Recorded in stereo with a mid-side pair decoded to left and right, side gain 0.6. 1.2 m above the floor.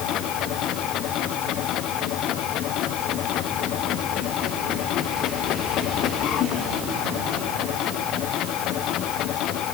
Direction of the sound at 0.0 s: 60° left.